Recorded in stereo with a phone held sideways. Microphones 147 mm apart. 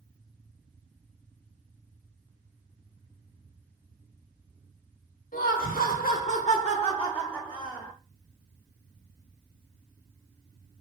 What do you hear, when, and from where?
5.3 s laughter: 70° left (ahead or behind), 0.7 m; by 7.9 s 5° left (ahead or behind), 1.0 m